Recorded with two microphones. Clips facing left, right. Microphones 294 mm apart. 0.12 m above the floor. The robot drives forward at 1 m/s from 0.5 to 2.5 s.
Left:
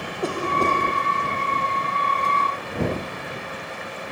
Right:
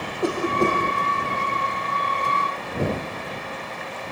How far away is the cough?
About 4.5 m.